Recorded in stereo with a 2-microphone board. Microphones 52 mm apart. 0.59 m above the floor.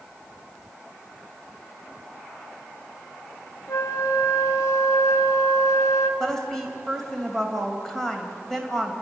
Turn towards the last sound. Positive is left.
turn(degrees=5)  # may be behind; listen again after turning